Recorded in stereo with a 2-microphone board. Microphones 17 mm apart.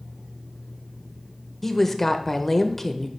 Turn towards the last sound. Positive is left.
turn(degrees=20)  # may be behind; listen again after turning